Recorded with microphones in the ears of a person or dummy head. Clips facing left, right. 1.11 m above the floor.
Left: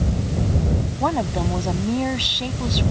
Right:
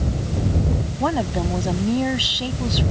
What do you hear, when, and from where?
1.0 s a woman speaking: 10° right (ahead or behind)